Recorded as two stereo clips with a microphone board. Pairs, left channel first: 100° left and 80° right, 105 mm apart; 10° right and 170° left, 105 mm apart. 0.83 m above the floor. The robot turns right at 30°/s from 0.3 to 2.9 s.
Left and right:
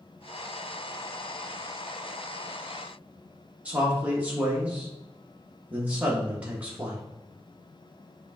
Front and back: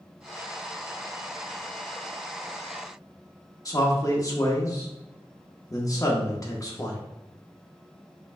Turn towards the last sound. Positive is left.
turn(degrees=-15)